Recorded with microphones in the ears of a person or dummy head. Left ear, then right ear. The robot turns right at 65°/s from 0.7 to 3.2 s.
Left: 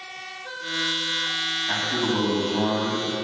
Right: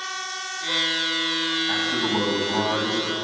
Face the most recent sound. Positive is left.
turn(degrees=-65)